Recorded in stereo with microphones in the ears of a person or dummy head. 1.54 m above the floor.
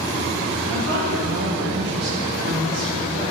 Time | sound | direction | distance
0.7 | a woman speaking | 85° right | 3 m